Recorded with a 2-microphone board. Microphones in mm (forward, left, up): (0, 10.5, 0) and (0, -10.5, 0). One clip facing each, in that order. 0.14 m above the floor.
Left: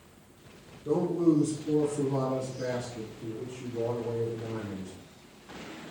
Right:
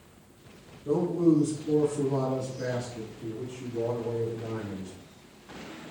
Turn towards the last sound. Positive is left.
turn(degrees=-65)  # may be behind; listen again after turning